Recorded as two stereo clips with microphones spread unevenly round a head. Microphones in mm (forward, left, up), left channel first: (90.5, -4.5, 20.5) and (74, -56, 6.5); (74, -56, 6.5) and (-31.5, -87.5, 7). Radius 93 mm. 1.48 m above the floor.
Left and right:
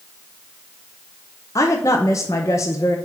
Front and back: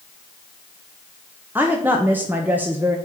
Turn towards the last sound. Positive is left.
turn(degrees=115)